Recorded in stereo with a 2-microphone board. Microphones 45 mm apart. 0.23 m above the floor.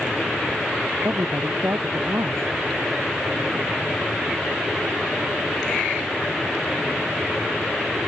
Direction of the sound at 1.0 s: 80° right.